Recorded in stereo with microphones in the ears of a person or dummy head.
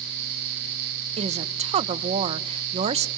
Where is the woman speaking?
25° right (ahead or behind), 1.2 m.